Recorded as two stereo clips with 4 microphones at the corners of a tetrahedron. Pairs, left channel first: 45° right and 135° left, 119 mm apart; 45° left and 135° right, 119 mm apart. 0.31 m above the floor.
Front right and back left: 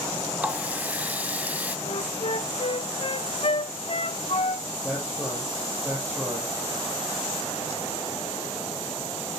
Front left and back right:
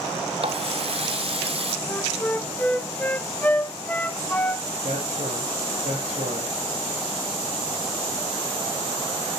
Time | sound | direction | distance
0.4 | a running tap | 150° right | 1.2 m
1.9 | a flute | 30° right | 0.8 m
4.8 | a man speaking | 145° right | 7 m